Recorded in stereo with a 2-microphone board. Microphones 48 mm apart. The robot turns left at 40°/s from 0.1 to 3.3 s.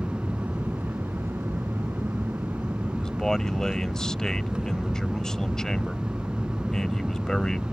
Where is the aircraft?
30° right; by 7.7 s 155° right.